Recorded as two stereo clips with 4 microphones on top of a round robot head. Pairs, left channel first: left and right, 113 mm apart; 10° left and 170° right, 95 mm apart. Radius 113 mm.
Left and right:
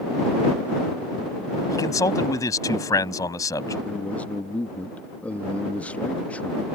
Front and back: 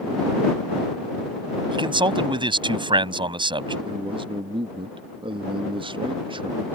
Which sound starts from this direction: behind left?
A man speaking, at 1.7 s.